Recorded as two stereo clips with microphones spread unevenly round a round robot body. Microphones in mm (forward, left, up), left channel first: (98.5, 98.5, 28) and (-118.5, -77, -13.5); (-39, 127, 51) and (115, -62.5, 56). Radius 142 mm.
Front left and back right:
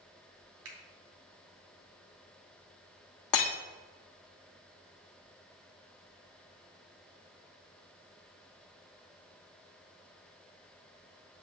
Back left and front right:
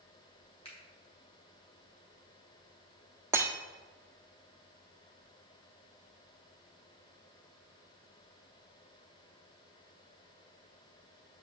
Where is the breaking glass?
30° left, 1.2 m.